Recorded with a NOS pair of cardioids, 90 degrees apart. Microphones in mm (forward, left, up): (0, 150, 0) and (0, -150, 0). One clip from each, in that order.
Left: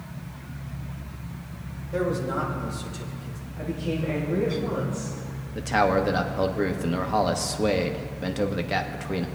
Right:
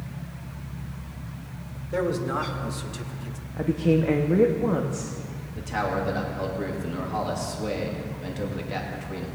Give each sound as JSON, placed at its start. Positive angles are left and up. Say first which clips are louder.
{"t": 1.9, "sound": "a man speaking", "louder": "right 1 dB", "azimuth_deg": -45, "distance_m": 2.5}
{"t": 3.6, "sound": "a woman speaking", "louder": "right 7 dB", "azimuth_deg": -50, "distance_m": 1.1}
{"t": 5.5, "sound": "a man speaking", "louder": "left 6 dB", "azimuth_deg": 45, "distance_m": 1.3}